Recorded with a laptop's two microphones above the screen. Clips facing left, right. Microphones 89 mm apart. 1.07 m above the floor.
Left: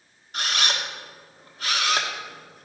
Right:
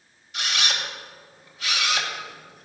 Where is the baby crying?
I don't hear a baby crying.